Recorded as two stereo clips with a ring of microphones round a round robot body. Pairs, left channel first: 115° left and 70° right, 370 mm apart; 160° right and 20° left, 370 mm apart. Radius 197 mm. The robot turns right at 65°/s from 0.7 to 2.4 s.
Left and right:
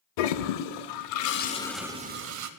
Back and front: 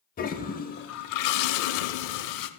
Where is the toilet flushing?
135° left, 0.5 m; by 2.5 s 115° right, 0.5 m.